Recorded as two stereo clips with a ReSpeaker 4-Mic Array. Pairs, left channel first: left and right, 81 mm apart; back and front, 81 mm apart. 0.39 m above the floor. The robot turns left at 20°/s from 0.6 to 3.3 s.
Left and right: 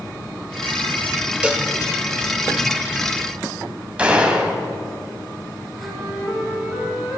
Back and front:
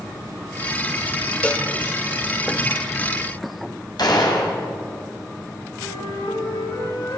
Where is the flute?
175° left, 7.5 m.